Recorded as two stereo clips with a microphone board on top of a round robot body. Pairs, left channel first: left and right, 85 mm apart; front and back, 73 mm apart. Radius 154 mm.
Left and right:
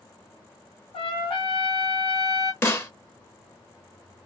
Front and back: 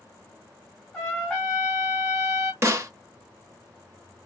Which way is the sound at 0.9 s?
80° left.